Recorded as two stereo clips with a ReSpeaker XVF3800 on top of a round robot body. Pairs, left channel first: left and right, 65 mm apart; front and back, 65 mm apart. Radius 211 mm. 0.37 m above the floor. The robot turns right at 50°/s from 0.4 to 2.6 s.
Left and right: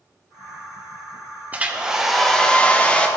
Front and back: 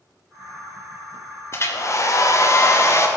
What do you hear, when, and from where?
1.5 s a hair dryer: 30° right, 1.6 m; by 3.1 s 20° left, 1.6 m